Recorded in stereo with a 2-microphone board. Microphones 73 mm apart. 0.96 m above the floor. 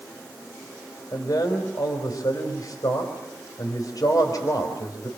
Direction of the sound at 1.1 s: 60° left (ahead or behind).